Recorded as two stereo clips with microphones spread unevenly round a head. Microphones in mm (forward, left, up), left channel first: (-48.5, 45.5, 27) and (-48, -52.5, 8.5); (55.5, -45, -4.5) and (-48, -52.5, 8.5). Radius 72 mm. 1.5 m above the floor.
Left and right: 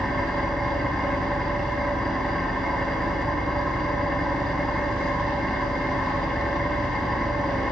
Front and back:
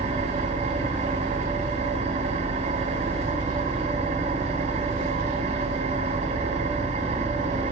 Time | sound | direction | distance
0.0 | an engine running | 175° left | 4.5 m